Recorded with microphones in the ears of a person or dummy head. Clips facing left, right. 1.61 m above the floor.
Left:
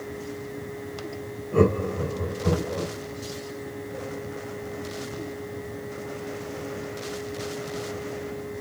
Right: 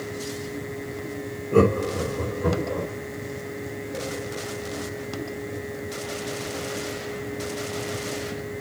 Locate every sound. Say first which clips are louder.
1.5 s laughter: right 2 dB; 50° right (ahead or behind), 6 m; by 2.9 s 45° right (ahead or behind), 7 m